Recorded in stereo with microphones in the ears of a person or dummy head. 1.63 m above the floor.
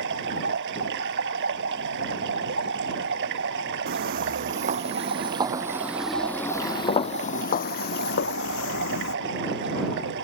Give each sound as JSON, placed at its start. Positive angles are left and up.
{"t": 0.0, "sound": "running water", "side_deg": -65}
{"t": 3.9, "sound": "footsteps", "side_deg": -45}